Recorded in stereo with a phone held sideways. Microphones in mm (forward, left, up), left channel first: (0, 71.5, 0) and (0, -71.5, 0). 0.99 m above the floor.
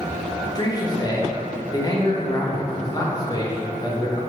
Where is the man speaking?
25° left (ahead or behind), 0.7 m.